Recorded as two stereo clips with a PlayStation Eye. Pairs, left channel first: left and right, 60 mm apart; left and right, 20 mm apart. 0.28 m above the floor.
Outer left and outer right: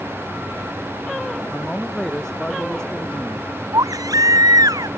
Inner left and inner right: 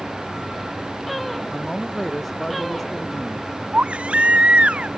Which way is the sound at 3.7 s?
85° right.